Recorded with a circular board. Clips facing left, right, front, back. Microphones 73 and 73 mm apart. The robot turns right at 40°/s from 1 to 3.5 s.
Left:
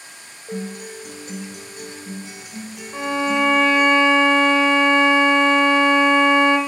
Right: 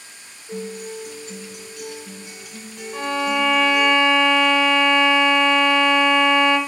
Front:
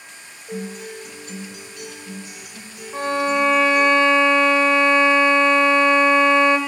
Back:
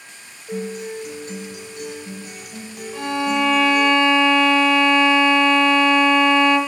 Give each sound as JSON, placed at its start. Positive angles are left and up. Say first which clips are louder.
{"t": 0.5, "sound": "a guitar", "louder": "even, back 4 dB", "azimuth_deg": 95, "distance_m": 1.1}
{"t": 2.9, "sound": "a violin", "louder": "left 1 dB, front 1 dB", "azimuth_deg": 25, "distance_m": 0.8}